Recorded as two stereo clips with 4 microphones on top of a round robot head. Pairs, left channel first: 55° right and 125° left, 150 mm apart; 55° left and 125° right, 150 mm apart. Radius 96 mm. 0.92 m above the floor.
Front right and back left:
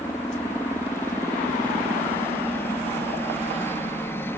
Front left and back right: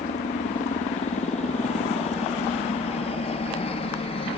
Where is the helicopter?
20° left; by 4.4 s 15° left.